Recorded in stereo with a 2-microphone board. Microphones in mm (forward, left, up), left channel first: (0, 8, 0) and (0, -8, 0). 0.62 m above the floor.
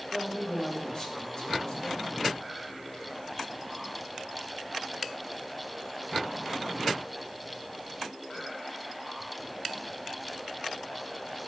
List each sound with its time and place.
0.1 s a man speaking: 50° left (ahead or behind), 2.5 m